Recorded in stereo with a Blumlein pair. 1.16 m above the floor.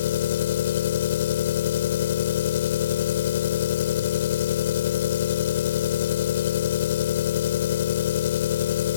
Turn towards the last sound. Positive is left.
turn(degrees=60)